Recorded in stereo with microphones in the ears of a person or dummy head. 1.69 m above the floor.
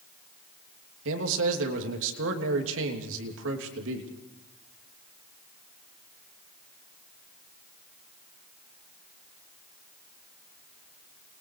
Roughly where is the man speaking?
Right.